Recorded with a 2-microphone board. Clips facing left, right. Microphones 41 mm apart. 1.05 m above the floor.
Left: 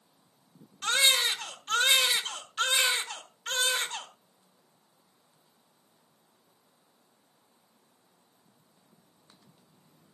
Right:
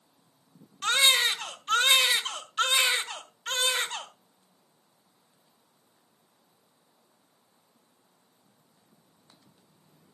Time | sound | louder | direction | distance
0.8 | a baby crying | right 2 dB | 30° right (ahead or behind) | 2.0 m